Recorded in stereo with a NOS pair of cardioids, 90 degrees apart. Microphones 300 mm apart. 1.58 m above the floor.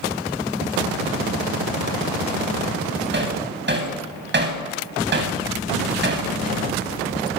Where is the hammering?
35° right, 8 m.